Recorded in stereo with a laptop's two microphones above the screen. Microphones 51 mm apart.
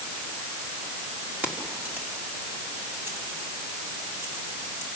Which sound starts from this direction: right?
Keys jangling, at 1.4 s.